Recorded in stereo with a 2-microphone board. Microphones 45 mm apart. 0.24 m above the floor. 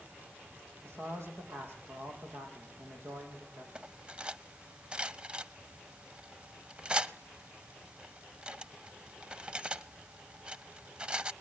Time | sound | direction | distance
0.8 | a man speaking | 70° right (ahead or behind) | 8.5 m
3.8 | cutlery clinking | 25° right (ahead or behind) | 0.6 m